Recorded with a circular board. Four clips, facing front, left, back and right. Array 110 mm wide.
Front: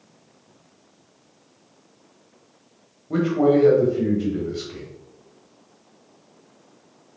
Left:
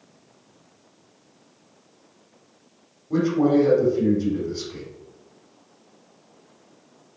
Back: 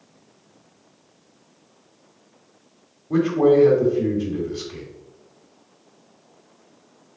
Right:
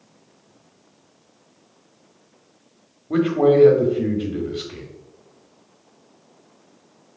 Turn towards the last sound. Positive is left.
turn(degrees=-90)